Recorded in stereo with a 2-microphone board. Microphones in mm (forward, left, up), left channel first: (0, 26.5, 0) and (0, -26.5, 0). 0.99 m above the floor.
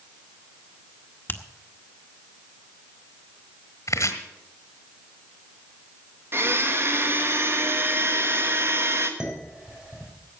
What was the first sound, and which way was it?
A finger snap, 35° left (ahead or behind).